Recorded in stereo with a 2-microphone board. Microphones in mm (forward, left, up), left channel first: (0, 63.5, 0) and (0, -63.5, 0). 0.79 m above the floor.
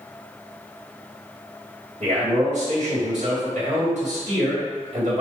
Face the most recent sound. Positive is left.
turn(degrees=-60)  # may be behind; listen again after turning